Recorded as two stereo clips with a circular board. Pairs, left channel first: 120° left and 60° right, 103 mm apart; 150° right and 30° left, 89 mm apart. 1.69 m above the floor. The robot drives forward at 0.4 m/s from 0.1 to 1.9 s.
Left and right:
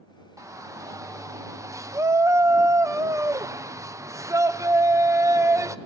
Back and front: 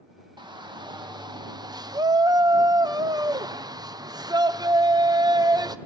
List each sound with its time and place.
0.4 s a shout: straight ahead, 1.2 m; by 5.8 s 5° right, 0.6 m